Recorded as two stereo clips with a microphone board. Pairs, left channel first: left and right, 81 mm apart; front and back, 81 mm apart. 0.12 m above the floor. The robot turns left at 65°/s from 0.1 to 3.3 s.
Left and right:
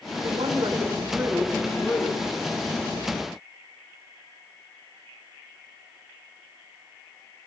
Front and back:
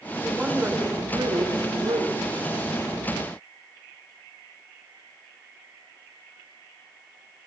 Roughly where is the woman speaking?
Right.